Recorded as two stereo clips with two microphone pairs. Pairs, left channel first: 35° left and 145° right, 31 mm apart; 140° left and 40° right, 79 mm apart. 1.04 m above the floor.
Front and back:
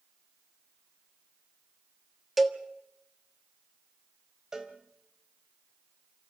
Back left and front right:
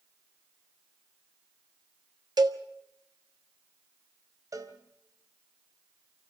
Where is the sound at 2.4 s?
65° right, 1.3 m.